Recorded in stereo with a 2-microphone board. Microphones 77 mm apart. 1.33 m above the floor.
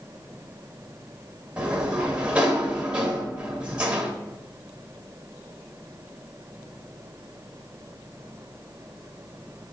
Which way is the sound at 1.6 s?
15° right (ahead or behind).